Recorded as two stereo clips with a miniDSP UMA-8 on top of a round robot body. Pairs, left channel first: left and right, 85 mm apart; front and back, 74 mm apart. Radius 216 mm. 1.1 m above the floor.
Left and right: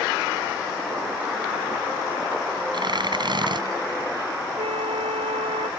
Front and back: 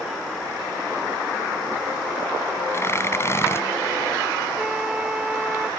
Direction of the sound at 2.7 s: 55° right.